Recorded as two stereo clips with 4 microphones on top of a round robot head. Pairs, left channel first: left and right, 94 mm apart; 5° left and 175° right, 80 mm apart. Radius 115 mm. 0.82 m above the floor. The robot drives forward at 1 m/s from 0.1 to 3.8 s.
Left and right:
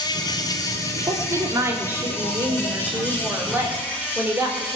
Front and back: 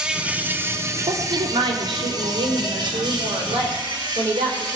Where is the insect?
110° left, 1.6 m; by 4.8 s 165° left, 4.5 m.